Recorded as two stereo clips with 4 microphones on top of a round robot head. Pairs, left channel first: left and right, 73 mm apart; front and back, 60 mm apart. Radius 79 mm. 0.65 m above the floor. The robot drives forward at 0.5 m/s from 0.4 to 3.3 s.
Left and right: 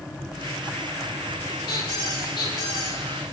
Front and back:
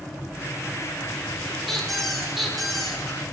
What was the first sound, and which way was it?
A squeak, 85° left.